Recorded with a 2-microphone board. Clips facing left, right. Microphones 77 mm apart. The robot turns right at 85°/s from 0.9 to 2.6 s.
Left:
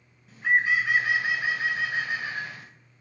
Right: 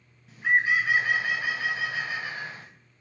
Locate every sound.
0.3 s a bird: 5° left, 0.8 m; by 2.7 s 150° left, 0.8 m